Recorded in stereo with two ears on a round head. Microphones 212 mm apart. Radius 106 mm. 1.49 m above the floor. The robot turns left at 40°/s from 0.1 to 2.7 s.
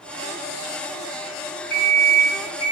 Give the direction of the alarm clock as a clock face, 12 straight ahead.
8 o'clock.